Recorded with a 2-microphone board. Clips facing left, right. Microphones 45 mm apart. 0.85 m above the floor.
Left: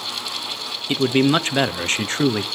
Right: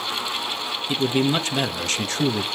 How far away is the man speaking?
About 0.8 m.